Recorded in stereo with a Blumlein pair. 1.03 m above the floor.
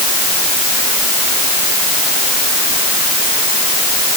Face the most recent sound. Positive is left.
No sound to turn to.